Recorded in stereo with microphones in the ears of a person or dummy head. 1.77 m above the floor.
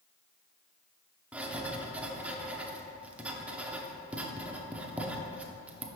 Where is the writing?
10° right (ahead or behind), 0.6 m.